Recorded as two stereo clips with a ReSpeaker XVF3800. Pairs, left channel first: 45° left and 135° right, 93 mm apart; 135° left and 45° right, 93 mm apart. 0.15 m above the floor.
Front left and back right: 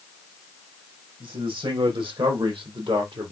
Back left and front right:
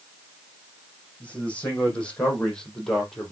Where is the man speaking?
150° right, 6 m; by 3.3 s 135° right, 3.5 m.